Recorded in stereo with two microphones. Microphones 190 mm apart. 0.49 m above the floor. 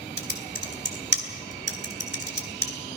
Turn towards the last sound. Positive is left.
turn(degrees=-65)  # may be behind; listen again after turning